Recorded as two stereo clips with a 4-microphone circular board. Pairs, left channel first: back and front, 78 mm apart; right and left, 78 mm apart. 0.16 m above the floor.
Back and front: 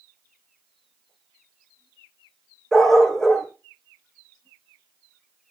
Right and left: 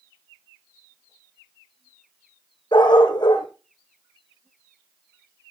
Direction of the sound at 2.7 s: 95° right.